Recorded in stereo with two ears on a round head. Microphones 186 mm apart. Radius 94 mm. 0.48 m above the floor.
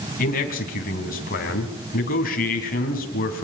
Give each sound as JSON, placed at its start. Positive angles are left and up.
{"t": 0.2, "sound": "a man speaking", "side_deg": 45, "distance_m": 3.5}